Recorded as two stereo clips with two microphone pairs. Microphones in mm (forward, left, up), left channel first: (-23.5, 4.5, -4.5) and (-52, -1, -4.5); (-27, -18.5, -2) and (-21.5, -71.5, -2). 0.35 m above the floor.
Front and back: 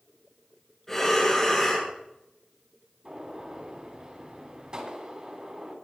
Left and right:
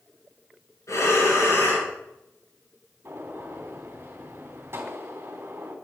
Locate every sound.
0.9 s breathing: 85° left, 6 m
3.0 s a gunshot: 115° right, 3.5 m